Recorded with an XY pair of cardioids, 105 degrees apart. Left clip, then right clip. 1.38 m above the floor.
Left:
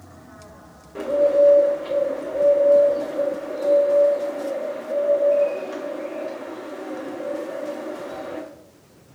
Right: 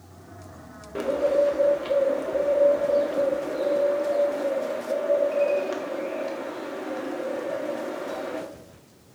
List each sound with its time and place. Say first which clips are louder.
0.9 s a bird: left 5 dB; 40° right, 0.8 m